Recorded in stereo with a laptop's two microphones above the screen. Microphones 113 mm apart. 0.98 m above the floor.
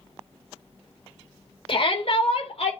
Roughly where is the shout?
Left.